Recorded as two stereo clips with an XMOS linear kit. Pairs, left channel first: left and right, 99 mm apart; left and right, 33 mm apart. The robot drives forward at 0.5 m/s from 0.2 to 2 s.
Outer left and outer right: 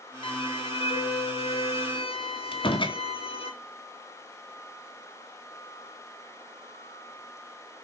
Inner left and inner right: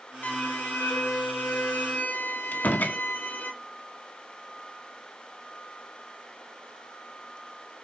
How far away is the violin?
About 1.7 m.